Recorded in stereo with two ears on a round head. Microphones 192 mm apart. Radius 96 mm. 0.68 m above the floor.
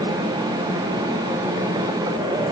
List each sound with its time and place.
Only background noise.